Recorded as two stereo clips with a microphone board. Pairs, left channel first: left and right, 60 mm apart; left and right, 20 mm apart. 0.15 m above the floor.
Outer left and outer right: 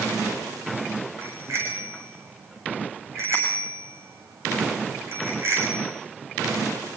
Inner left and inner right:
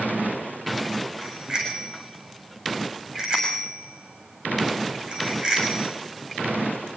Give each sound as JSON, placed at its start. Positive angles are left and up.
{"t": 1.2, "sound": "a bicycle bell", "side_deg": -45, "distance_m": 7.5}